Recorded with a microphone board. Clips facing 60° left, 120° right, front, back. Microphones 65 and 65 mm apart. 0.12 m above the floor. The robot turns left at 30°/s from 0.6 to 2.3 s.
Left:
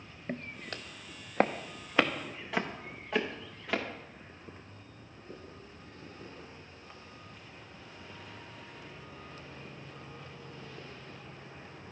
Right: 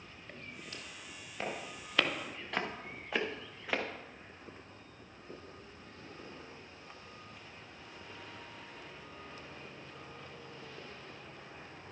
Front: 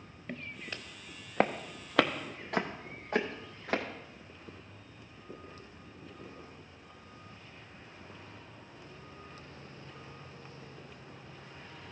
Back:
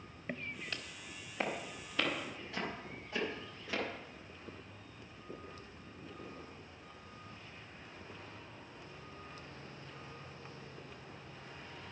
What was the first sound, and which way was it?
Footsteps, 105° left.